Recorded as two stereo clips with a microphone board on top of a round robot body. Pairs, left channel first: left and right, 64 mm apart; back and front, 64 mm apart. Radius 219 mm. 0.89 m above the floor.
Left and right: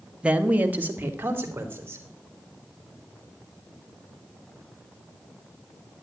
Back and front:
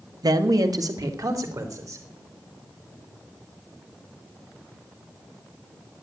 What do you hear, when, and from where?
0.2 s a man speaking: 15° right, 1.4 m; by 2.0 s 35° right, 3.5 m